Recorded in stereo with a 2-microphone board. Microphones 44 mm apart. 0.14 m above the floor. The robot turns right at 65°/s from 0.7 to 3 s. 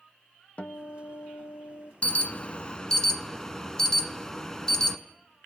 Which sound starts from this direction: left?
An alarm, at 2.0 s.